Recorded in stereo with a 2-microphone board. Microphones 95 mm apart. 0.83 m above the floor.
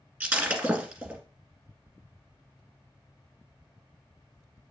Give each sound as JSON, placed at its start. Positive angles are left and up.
{"t": 0.2, "sound": "breaking glass", "side_deg": -15, "distance_m": 1.8}